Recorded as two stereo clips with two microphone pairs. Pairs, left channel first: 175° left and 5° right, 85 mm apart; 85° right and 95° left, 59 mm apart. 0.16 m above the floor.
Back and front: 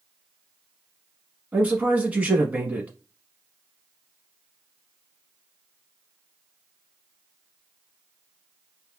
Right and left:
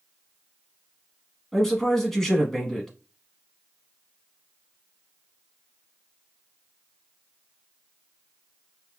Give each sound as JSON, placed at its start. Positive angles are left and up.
{"t": 1.5, "sound": "a man speaking", "azimuth_deg": -15, "distance_m": 1.0}